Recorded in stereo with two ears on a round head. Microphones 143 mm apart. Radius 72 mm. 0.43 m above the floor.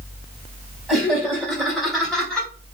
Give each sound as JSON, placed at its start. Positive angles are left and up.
{"t": 0.9, "sound": "laughter", "side_deg": -5, "distance_m": 1.5}